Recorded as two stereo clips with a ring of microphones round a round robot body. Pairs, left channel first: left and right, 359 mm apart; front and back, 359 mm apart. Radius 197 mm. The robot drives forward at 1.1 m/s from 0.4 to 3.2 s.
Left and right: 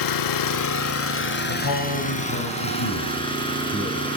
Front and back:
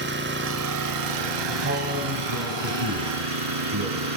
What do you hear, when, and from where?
0.0 s an engine running: 120° left, 1.0 m; by 4.2 s 165° left, 3.5 m
1.5 s a man speaking: 110° left, 2.5 m; by 4.1 s 140° left, 3.5 m